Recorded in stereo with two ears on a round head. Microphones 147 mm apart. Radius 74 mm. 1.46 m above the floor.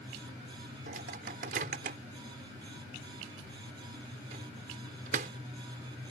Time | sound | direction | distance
0.9 | a microwave | 50° right (ahead or behind) | ?